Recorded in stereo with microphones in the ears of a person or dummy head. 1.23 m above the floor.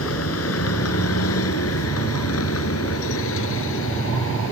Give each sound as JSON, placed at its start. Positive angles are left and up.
{"t": 0.0, "sound": "a vehicle", "side_deg": 75}